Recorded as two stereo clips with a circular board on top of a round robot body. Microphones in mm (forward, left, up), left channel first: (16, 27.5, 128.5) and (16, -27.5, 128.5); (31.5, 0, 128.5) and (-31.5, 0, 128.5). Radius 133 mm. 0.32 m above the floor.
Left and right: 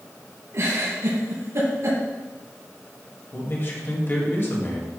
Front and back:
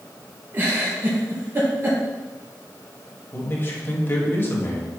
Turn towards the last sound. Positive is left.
turn(degrees=50)